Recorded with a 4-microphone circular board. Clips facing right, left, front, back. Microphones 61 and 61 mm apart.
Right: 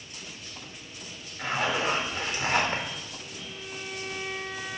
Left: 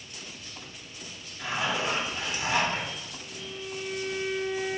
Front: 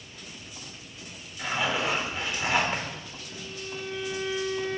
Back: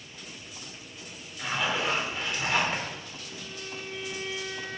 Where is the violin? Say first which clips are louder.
Left 2 dB, front 3 dB; 170° right, 1.9 m.